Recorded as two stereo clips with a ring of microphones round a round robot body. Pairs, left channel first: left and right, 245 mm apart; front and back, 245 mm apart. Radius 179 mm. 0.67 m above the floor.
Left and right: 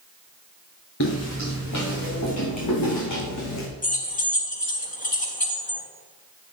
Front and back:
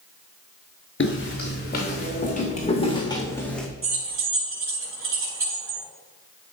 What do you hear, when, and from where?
1.0 s footsteps: 45° left, 4.5 m; by 3.7 s 90° left, 2.5 m
3.8 s keys jangling: 145° left, 4 m